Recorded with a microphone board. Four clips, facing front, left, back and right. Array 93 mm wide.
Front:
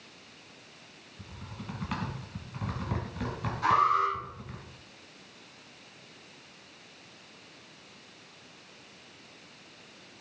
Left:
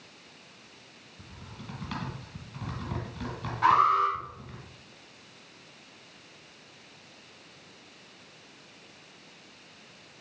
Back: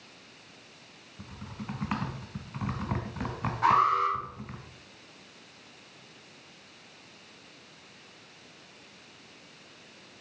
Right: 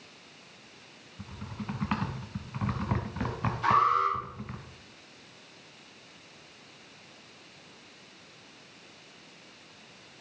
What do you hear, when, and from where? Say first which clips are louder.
1.2 s typing on a keyboard: right 6 dB, back 3 dB; 120° right, 1.5 m
3.6 s an alarm: left 2 dB, back 1 dB; 120° left, 5.5 m